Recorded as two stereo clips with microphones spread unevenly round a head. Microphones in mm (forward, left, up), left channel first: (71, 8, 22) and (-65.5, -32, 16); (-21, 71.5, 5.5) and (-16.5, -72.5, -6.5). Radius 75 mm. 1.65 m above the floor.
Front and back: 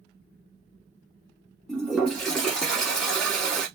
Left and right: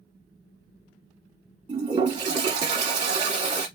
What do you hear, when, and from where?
1.7 s a toilet flushing: 70° right, 1.1 m